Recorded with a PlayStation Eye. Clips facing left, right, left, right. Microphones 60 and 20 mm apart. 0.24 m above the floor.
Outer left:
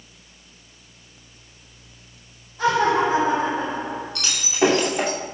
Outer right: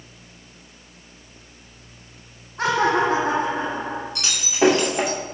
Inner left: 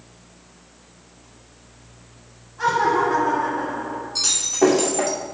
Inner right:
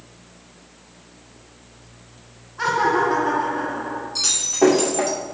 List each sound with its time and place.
2.6 s laughter: 60° right (ahead or behind), 2.5 m; by 4.0 s 40° right (ahead or behind), 2.5 m
4.2 s breaking glass: 15° right (ahead or behind), 4.5 m